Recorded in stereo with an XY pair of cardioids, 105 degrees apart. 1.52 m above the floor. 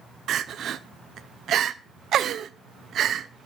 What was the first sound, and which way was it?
Crying, 65° right.